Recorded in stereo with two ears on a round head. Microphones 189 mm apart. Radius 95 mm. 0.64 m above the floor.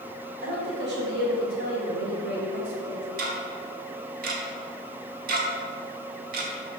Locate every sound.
0.4 s a woman speaking: 50° right (ahead or behind), 3 m
3.2 s ticking: 45° right (ahead or behind), 1.3 m